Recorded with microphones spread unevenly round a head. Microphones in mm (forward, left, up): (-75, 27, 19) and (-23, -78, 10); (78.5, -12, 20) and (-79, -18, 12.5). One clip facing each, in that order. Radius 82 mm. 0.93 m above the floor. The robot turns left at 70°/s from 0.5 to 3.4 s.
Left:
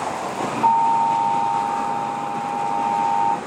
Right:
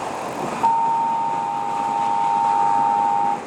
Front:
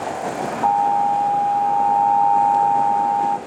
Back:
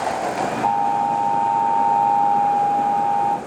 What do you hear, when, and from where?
0.6 s an alarm: 15° left, 1.0 m; by 3.4 s 175° right, 1.0 m